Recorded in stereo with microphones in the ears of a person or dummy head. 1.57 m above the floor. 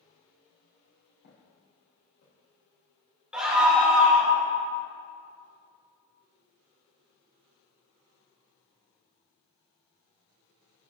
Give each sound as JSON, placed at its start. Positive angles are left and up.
{"t": 1.2, "sound": "footsteps", "side_deg": 65, "distance_m": 3.5}
{"t": 3.3, "sound": "a scream", "side_deg": -5, "distance_m": 2.0}